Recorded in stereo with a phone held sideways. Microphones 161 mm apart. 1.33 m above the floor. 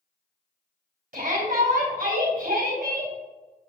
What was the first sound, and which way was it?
A shout, 65° right (ahead or behind).